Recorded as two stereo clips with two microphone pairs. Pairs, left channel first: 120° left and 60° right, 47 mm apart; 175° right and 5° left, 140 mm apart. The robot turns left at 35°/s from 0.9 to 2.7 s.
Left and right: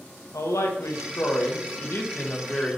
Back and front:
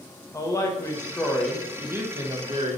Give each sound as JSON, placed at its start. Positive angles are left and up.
{"t": 0.3, "sound": "a woman speaking", "azimuth_deg": 115, "distance_m": 1.2}